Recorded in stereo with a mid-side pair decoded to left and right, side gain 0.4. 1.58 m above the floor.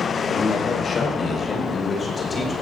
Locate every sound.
0.3 s a man speaking: 60° left, 4.5 m; by 2.5 s 45° left, 6 m